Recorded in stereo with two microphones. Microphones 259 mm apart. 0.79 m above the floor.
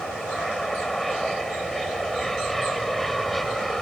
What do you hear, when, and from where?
0.0 s an aircraft: centre (ahead or behind)